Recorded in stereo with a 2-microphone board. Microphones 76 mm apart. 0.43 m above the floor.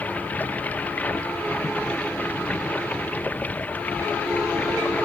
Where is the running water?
20° left (ahead or behind).